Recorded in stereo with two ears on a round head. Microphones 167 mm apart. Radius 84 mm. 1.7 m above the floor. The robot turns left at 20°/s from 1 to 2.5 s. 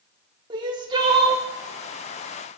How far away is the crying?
About 1.0 m.